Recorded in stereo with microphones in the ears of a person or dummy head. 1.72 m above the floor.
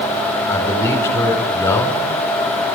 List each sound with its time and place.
0.5 s a man speaking: 15° left (ahead or behind), 5.5 m